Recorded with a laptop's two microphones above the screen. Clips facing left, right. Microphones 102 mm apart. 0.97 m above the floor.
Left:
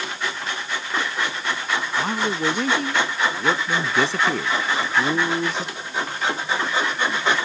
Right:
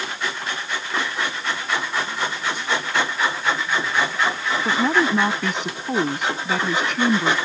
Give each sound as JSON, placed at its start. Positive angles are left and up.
{"t": 2.0, "sound": "a man speaking", "side_deg": 85}
{"t": 4.7, "sound": "a woman speaking", "side_deg": -70}